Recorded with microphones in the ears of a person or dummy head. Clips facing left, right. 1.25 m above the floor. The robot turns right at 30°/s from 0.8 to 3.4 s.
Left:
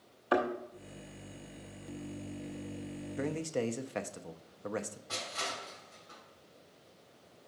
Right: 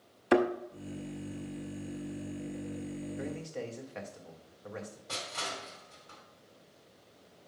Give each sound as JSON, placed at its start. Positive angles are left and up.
{"t": 0.3, "sound": "a thud", "side_deg": -35, "distance_m": 0.8}
{"t": 3.2, "sound": "a man speaking", "side_deg": 65, "distance_m": 0.6}
{"t": 5.1, "sound": "crushing", "side_deg": -45, "distance_m": 3.0}